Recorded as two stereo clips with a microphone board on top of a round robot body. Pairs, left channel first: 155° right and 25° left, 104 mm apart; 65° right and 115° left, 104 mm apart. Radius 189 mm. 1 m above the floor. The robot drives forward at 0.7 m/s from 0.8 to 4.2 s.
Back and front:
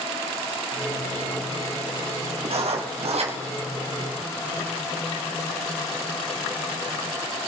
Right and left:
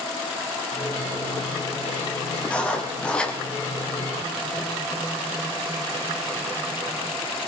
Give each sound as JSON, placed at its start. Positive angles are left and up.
{"t": 2.5, "sound": "writing", "azimuth_deg": 10, "distance_m": 3.5}